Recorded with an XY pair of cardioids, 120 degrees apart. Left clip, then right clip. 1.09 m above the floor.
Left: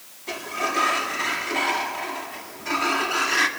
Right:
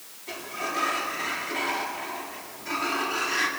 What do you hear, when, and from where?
0.3 s a sliding door: 35° left, 1.9 m